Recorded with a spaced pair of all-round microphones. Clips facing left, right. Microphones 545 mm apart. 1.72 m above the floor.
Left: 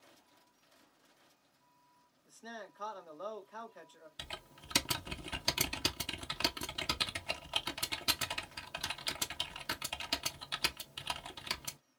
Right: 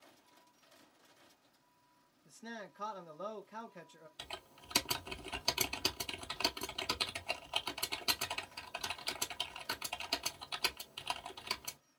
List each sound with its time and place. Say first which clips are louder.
2.2 s a man speaking: right 1 dB; 50° right (ahead or behind), 0.8 m
4.2 s typing on a keyboard: even; 45° left (ahead or behind), 0.5 m